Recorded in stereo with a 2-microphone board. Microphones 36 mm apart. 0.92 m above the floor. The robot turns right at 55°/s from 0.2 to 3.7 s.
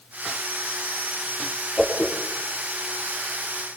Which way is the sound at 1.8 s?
20° left (ahead or behind).